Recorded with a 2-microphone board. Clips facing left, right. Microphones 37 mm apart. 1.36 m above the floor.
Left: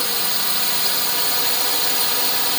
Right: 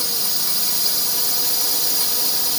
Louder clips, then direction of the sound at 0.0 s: Left 3 dB; 45° left (ahead or behind).